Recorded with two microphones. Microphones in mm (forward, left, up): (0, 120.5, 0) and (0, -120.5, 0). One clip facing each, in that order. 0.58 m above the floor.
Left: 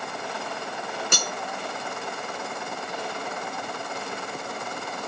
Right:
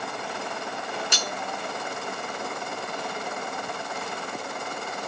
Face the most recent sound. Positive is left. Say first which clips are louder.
# left 2 dB
turn(degrees=55)  # may be behind; listen again after turning